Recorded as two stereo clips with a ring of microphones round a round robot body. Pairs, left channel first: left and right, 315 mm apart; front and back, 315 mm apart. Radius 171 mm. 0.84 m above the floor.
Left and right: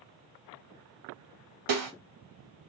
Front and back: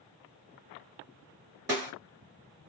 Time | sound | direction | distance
1.7 | a snare drum | 100° right | 2 m